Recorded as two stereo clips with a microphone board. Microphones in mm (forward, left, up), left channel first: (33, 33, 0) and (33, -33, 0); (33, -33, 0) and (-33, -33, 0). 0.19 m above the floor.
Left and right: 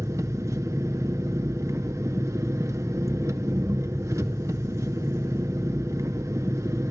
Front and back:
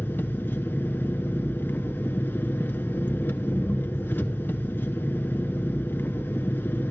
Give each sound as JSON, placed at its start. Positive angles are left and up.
{"t": 0.0, "sound": "an engine running", "azimuth_deg": -55, "distance_m": 0.9}